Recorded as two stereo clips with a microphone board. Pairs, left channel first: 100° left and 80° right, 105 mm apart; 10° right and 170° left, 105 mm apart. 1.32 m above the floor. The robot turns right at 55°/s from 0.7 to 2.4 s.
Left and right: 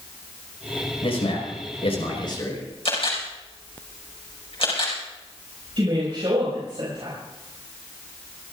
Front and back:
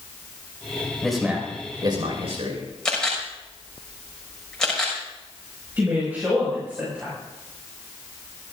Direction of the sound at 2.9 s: 75° left.